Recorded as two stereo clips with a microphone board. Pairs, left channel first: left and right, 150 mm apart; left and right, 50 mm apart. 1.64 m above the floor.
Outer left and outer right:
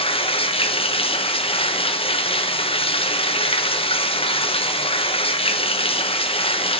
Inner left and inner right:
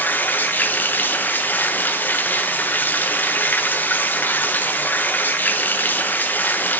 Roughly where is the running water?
Left.